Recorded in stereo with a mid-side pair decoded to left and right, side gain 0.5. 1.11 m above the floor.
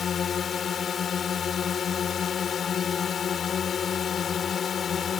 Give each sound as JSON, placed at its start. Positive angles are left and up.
{"t": 0.0, "sound": "a drone", "azimuth_deg": 45}